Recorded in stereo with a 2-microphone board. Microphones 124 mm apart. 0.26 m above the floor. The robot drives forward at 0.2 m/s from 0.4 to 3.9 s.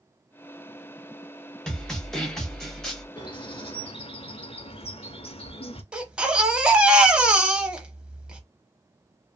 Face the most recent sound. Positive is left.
turn(degrees=-10)  # may be behind; listen again after turning